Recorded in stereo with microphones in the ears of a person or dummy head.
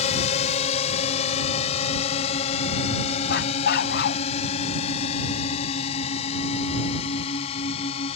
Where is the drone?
35° left (ahead or behind).